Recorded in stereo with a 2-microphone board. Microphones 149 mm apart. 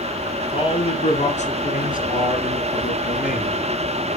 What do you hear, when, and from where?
0.5 s a man speaking: 35° left (ahead or behind), 1.8 m; by 3.6 s 70° left (ahead or behind), 3 m